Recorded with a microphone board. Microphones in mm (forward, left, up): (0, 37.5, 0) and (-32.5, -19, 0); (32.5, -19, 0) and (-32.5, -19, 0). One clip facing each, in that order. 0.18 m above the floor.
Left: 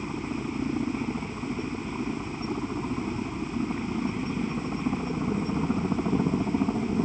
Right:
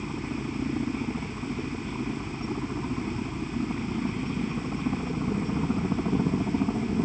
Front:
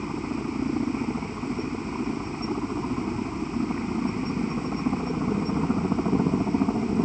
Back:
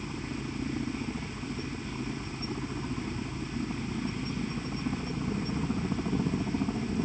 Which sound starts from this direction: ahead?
A helicopter, at 0.0 s.